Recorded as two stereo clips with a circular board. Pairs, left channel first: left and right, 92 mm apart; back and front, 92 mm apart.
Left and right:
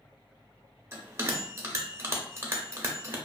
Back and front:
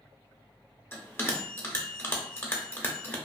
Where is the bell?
130° right, 0.6 m.